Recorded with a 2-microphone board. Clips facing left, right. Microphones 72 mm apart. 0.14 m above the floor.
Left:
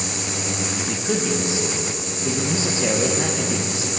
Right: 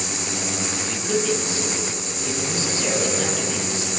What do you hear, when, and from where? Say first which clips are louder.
0.8 s a man speaking: even; 20° left (ahead or behind), 5.5 m